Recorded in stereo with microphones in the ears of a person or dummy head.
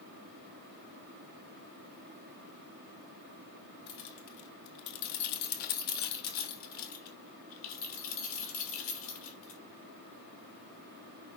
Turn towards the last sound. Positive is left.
turn(degrees=35)  # may be behind; listen again after turning